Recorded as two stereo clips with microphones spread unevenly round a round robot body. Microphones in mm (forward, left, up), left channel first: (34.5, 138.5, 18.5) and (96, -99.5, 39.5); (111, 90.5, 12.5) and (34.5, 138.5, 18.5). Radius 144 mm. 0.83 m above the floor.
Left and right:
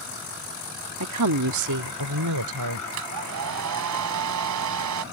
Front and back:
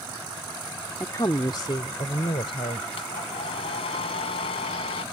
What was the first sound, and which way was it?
A woman speaking, 105° right.